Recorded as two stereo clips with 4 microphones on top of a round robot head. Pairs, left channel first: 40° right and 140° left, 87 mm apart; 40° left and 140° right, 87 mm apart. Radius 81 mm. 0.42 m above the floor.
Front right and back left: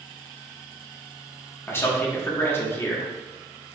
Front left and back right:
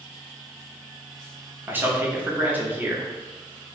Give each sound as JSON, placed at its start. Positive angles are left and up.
{"t": 1.7, "sound": "a man speaking", "azimuth_deg": -85, "distance_m": 0.9}